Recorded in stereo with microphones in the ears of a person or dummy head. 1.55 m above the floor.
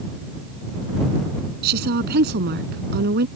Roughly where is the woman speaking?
Right.